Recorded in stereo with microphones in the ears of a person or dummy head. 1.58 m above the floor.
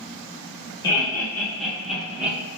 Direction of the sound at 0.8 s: 20° left (ahead or behind).